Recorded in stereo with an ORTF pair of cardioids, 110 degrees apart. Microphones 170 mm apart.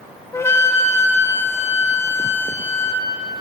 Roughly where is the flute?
Ahead.